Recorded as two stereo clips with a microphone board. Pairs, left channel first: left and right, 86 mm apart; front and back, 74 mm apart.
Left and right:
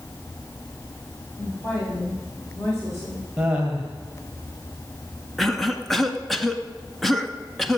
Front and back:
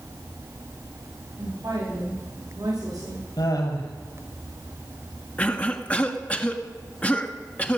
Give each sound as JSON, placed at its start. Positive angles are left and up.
{"t": 1.4, "sound": "a woman speaking", "azimuth_deg": 140, "distance_m": 7.5}
{"t": 3.4, "sound": "laughter", "azimuth_deg": -5, "distance_m": 4.0}
{"t": 5.4, "sound": "a cough", "azimuth_deg": 5, "distance_m": 1.1}